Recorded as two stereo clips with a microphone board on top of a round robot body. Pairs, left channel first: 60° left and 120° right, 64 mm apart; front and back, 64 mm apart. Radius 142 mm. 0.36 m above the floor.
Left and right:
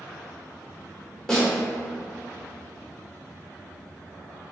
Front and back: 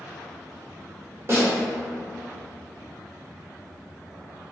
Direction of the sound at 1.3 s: 140° left.